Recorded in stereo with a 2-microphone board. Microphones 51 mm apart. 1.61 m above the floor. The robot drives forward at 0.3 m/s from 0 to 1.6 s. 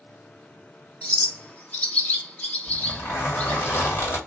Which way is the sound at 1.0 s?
25° left (ahead or behind).